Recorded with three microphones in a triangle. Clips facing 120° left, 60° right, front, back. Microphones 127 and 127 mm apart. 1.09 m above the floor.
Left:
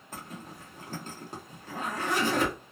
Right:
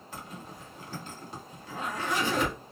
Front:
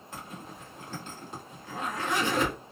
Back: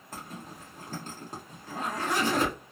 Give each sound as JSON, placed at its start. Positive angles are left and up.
{"t": 0.1, "sound": "a zipper", "azimuth_deg": 145, "distance_m": 1.0}